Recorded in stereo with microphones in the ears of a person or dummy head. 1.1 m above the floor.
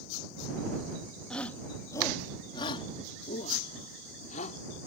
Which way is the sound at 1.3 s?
5° left (ahead or behind).